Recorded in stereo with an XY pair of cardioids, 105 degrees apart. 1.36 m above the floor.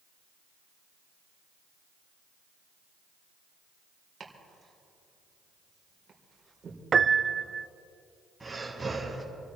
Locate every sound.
4.2 s chopping: 35° right, 3.5 m
6.9 s a piano: 35° right, 0.5 m
8.4 s breathing: 10° right, 4 m